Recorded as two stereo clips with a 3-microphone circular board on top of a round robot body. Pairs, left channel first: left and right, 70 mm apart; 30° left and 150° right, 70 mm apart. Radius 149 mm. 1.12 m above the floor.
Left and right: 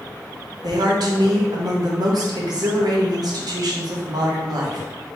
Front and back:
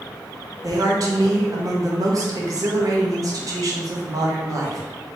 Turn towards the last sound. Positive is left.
turn(degrees=-115)